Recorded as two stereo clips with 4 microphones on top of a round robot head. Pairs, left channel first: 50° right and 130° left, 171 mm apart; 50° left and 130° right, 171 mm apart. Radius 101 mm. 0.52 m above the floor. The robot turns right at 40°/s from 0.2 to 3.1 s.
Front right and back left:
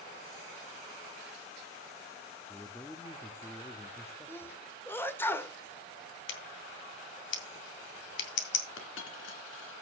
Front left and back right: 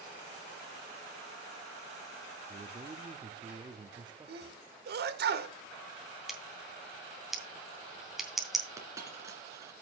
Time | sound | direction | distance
2.5 | a man speaking | 130° right | 0.7 m
4.3 | a sneeze | 125° right | 1.7 m
6.3 | scissors | 40° right | 2 m
8.8 | a dropped coin | 55° right | 2.5 m